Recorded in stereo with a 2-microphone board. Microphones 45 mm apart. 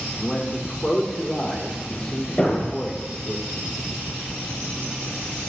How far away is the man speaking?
About 2.0 m.